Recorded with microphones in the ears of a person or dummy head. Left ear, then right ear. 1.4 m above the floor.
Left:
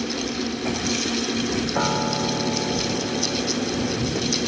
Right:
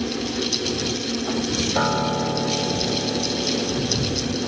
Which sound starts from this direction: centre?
A piano, at 1.8 s.